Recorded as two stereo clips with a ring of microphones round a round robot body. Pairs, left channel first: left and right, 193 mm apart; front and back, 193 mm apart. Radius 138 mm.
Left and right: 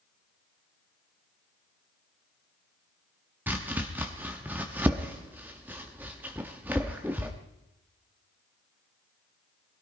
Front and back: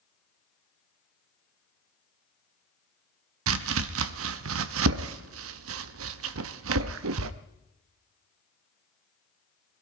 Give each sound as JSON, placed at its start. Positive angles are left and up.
{"t": 3.5, "sound": "chopping", "azimuth_deg": -175, "distance_m": 0.6}